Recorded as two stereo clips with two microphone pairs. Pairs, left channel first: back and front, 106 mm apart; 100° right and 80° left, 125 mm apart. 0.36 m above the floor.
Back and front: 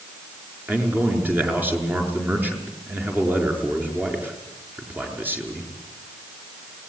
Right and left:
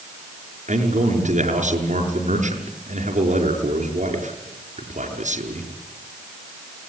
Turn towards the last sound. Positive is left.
turn(degrees=70)